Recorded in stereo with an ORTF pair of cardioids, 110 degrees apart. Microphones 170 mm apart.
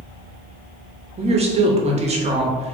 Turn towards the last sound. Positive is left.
turn(degrees=-35)